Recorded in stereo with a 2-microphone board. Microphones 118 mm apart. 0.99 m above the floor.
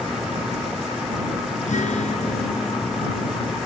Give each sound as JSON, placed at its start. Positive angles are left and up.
{"t": 1.7, "sound": "a guitar", "side_deg": 80}